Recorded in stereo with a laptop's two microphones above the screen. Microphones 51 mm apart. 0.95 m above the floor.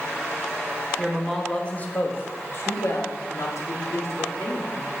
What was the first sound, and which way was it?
A woman speaking, 5° right (ahead or behind).